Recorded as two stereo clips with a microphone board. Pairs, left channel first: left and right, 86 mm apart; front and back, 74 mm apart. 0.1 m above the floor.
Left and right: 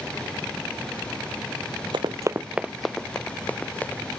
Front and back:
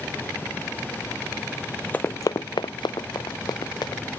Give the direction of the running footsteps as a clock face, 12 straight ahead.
2 o'clock.